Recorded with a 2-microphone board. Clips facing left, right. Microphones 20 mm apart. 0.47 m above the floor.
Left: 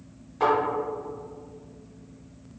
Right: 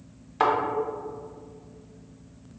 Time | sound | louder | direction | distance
0.4 | a thud | even | 60° right (ahead or behind) | 0.9 m